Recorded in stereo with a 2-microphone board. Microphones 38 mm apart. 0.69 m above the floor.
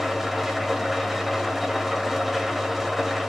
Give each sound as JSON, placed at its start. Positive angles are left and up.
{"t": 0.0, "sound": "an engine running", "side_deg": -5, "distance_m": 1.2}